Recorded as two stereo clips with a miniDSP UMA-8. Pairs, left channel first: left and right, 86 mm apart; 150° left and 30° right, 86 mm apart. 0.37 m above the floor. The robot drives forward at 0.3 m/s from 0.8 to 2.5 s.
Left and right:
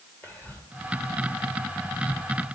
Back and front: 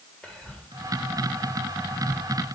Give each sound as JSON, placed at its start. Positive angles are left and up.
{"t": 0.2, "sound": "whispering", "azimuth_deg": 85, "distance_m": 1.3}